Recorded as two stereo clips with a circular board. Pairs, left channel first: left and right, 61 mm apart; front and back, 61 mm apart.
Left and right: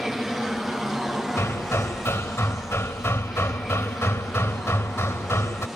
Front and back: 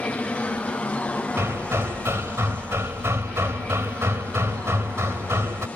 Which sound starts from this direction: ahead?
An aircraft, at 0.0 s.